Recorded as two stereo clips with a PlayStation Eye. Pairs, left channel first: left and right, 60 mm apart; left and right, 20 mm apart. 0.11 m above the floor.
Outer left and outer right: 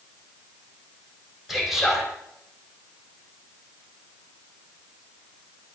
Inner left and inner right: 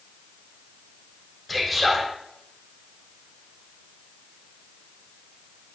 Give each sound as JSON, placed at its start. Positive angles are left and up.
{"t": 1.5, "sound": "a man speaking", "side_deg": -5, "distance_m": 4.5}